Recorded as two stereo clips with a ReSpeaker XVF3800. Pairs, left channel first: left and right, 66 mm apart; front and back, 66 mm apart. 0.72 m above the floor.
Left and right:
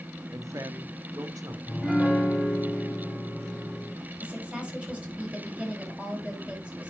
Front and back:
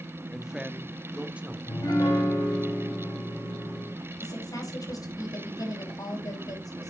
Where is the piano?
5° right, 5 m.